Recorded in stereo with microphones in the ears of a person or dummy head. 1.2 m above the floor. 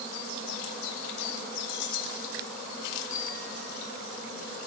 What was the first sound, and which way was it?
Keys jangling, 65° left (ahead or behind).